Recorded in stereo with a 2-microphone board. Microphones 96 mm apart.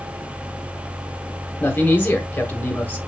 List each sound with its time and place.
1.6 s a man speaking: 20° left (ahead or behind), 1.5 m